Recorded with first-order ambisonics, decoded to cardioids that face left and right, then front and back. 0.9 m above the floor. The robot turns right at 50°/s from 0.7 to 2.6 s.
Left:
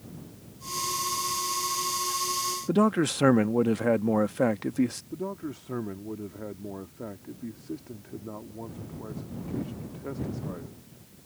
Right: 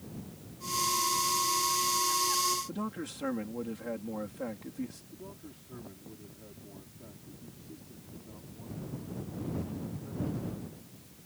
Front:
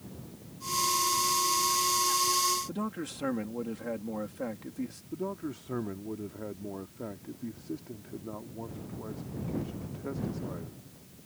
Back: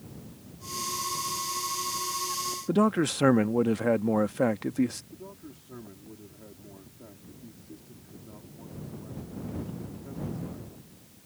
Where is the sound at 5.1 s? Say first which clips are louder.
Left 13 dB, front 10 dB; 50° left.